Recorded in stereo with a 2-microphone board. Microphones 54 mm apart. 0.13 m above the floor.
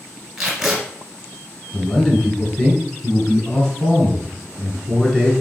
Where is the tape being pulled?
5° right (ahead or behind), 1.4 m.